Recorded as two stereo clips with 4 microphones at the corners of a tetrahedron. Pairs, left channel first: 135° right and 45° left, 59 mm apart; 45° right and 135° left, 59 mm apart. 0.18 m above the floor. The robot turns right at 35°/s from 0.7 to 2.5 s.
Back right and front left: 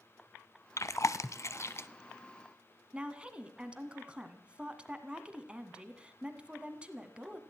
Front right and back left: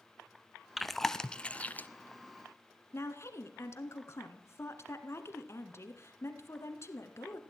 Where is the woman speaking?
20° right, 1.7 m.